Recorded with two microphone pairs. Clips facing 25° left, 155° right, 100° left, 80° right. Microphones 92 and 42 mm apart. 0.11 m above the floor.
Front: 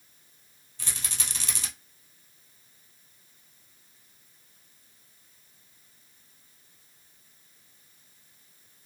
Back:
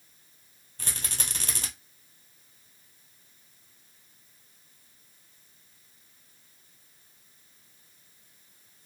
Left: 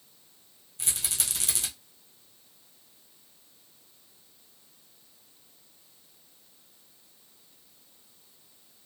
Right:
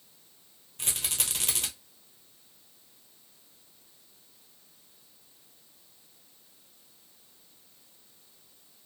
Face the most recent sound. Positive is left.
turn(degrees=-120)